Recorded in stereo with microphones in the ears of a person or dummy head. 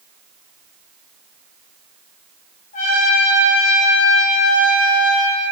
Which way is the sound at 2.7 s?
45° left (ahead or behind).